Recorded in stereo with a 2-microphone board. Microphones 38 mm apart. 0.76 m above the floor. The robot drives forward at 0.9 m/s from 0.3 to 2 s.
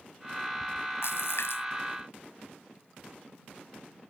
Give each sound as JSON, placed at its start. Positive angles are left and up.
{"t": 1.0, "sound": "a splash", "side_deg": 80}